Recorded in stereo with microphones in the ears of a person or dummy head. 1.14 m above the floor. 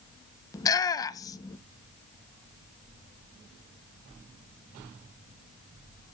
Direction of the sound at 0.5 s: 20° left (ahead or behind).